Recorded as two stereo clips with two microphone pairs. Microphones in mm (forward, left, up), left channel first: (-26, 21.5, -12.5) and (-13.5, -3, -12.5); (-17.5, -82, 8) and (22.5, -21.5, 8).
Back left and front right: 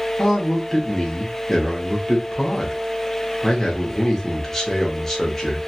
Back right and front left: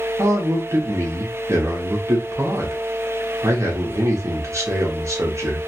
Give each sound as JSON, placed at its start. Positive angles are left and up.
{"t": 0.2, "sound": "a man speaking", "azimuth_deg": 50, "distance_m": 1.0}